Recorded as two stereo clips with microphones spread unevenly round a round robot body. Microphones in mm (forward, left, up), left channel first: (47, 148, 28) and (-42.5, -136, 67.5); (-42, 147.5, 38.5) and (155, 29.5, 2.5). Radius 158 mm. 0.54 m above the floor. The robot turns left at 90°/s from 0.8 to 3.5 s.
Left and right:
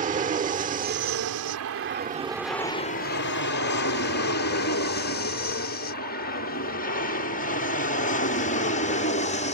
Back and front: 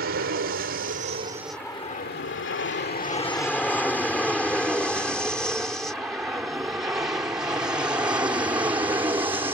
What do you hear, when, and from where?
0.0 s an aircraft: 45° right; by 9.6 s 30° left